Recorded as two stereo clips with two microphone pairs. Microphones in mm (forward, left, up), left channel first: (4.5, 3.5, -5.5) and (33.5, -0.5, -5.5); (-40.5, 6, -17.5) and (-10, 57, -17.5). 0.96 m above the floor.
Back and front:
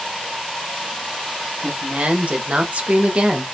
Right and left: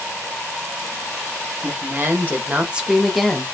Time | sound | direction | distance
1.6 | a woman speaking | 20° left | 1.3 m